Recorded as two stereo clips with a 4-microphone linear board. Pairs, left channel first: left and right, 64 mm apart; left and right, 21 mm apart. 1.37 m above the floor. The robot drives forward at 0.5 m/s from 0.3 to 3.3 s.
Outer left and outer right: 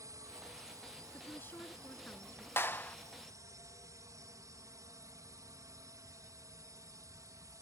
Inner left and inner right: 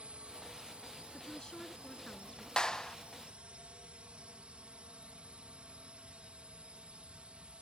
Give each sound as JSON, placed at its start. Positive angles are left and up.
{"t": 0.0, "sound": "a drone", "side_deg": -60}
{"t": 1.1, "sound": "a woman speaking", "side_deg": 35}
{"t": 2.6, "sound": "a clap", "side_deg": 40}